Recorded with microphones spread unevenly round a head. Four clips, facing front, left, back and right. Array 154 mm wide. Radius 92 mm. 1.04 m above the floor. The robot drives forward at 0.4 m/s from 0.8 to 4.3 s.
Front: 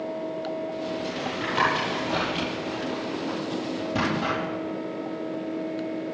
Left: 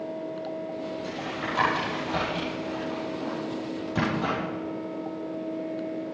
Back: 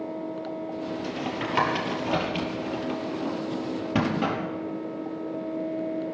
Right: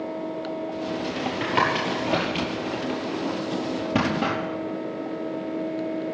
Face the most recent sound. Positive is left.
turn(degrees=-120)